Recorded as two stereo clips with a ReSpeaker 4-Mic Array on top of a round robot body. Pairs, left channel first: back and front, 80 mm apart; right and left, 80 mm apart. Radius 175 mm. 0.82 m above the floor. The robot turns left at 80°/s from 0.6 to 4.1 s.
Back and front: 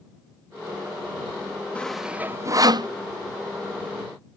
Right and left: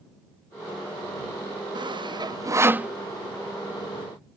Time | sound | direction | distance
1.8 | sawing | 105° left | ?